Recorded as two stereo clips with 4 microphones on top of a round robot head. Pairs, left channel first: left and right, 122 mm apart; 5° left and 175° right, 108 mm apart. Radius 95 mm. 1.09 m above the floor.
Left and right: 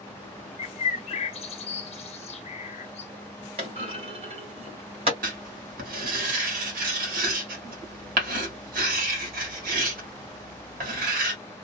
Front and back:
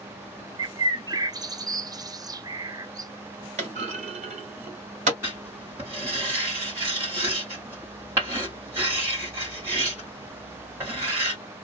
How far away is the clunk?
About 1.2 m.